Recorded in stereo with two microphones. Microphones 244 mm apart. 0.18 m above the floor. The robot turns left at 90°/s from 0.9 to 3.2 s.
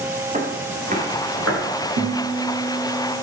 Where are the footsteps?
30° right (ahead or behind), 4 m; by 1.6 s 85° right, 5.5 m.